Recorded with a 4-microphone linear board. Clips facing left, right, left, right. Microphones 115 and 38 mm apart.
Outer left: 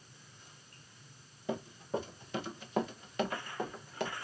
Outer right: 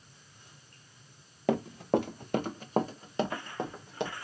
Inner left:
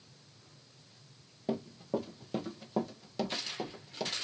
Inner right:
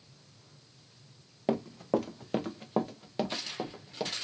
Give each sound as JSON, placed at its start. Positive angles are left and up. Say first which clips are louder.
{"t": 1.5, "sound": "running footsteps", "louder": "outer right 9 dB, inner right 5 dB", "side_deg": -70, "distance_m": 0.9}